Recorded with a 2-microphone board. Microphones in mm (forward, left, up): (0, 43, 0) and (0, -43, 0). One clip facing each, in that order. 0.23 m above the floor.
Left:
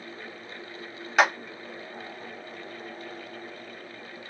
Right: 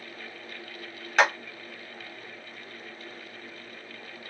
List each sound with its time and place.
1.2 s a clap: 5° left (ahead or behind), 0.9 m